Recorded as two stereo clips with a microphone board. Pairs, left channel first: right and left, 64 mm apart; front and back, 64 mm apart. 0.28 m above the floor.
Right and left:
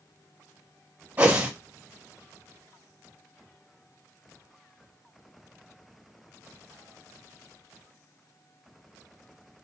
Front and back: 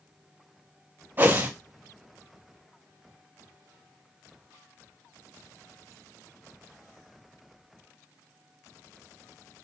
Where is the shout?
I don't hear a shout.